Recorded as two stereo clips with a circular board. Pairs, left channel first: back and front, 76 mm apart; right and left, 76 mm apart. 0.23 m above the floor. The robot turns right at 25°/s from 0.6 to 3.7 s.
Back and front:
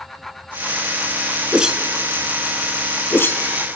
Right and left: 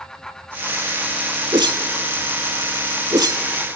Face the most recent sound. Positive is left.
turn(degrees=130)